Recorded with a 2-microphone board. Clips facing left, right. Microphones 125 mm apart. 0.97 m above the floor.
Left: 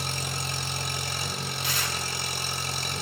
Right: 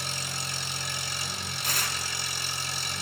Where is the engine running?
55° left (ahead or behind), 1.2 m.